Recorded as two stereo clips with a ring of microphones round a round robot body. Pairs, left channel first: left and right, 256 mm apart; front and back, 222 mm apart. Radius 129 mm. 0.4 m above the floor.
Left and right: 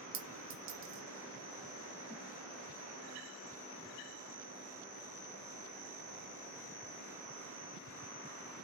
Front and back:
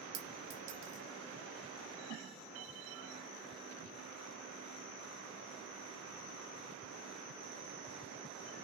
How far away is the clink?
About 1.0 m.